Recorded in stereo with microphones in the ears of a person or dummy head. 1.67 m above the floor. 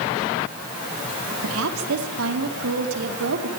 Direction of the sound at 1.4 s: 85° right.